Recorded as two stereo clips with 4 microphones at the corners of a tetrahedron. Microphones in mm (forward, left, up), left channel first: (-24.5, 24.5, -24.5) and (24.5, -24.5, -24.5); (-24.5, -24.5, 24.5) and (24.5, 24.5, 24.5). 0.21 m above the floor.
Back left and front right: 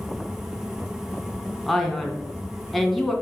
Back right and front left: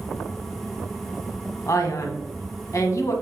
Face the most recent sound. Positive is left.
turn(degrees=-135)